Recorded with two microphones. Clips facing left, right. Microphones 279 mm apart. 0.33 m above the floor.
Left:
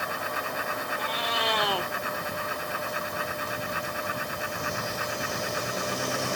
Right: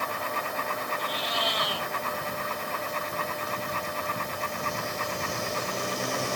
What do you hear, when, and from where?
1.0 s a cat meowing: 65° left (ahead or behind), 1.2 m